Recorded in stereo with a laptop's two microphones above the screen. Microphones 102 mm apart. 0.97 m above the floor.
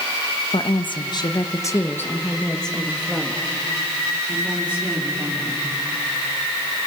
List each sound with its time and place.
0.5 s a woman speaking: 55° left (ahead or behind), 1.2 m; by 5.7 s 20° right (ahead or behind), 3 m